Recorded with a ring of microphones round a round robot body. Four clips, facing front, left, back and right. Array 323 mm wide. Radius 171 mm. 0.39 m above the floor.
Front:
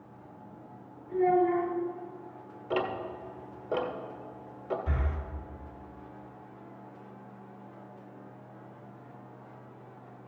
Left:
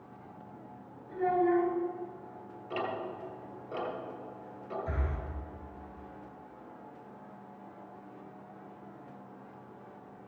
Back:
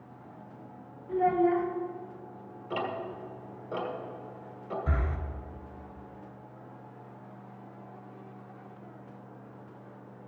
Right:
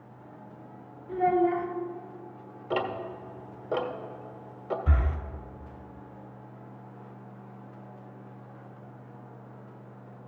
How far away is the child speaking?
About 1.4 m.